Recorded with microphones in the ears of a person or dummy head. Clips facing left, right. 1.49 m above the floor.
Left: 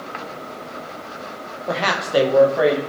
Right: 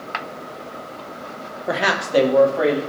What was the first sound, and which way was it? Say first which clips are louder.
A woman speaking: right 1 dB; 25° right (ahead or behind).